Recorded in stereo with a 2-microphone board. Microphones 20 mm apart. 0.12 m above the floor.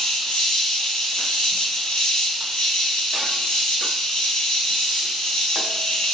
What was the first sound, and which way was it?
An insect, 60° left (ahead or behind).